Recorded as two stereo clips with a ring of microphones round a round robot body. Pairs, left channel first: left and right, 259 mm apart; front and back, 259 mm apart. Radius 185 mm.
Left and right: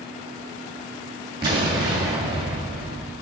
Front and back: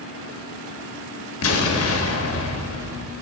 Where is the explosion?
15° right, 1.4 m.